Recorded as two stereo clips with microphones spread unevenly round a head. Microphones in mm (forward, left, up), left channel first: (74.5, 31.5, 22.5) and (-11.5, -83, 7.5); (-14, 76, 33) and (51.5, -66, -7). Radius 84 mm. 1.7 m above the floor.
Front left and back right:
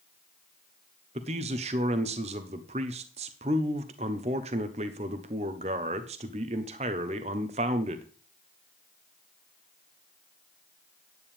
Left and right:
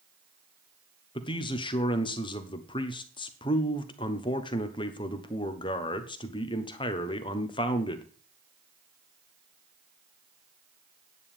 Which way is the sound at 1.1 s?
175° left.